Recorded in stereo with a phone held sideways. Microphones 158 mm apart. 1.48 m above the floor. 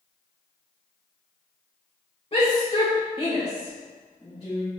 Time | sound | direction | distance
2.3 | a shout | 35° left (ahead or behind) | 1.3 m